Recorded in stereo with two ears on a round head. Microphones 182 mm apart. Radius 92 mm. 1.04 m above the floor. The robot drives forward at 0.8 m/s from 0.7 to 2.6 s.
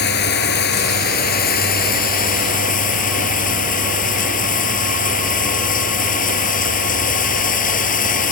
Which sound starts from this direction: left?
Running water, at 0.0 s.